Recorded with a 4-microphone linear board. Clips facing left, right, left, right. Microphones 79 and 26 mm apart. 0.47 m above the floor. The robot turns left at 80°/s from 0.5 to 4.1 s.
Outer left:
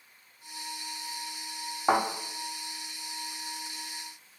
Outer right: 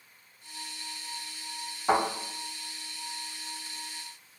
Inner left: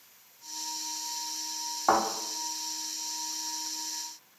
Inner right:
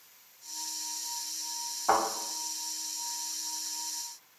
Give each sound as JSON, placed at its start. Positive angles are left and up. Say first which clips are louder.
{"t": 1.9, "sound": "a thud", "louder": "even, inner left 2 dB", "side_deg": 45, "distance_m": 1.6}